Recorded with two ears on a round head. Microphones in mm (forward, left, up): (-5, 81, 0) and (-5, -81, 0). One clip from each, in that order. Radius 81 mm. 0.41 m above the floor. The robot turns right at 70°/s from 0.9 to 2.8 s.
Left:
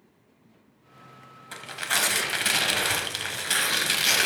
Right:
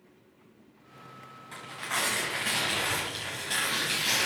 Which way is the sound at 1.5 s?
40° left.